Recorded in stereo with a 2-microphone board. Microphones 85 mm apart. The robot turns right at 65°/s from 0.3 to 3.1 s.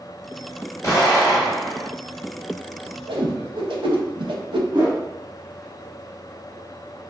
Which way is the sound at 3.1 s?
85° right.